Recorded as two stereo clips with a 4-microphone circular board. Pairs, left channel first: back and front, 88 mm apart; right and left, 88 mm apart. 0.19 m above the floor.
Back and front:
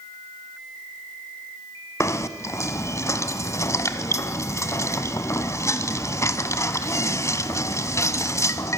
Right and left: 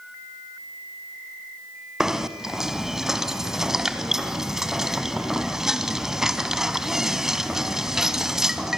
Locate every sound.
2.0 s knocking: 170° left, 1.3 m